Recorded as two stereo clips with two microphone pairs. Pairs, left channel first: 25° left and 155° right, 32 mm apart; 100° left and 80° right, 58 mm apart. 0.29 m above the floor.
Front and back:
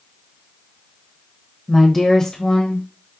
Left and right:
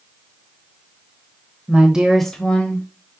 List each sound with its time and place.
1.7 s a woman speaking: 75° right, 1.1 m; by 2.9 s 65° left, 1.3 m